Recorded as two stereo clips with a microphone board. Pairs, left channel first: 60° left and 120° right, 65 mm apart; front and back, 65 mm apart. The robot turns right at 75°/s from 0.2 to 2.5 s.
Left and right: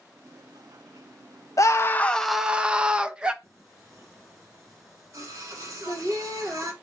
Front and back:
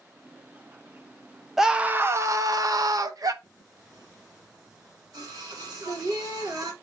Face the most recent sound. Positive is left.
turn(degrees=-165)